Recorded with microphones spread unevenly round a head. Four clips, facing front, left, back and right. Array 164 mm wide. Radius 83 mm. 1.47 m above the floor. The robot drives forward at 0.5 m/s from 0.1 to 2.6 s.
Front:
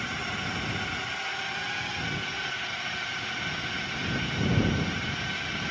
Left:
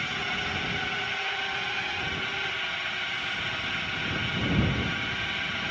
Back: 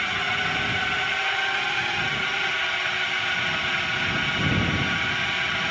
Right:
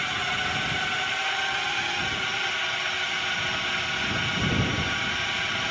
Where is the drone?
150° right; by 5.7 s 155° right.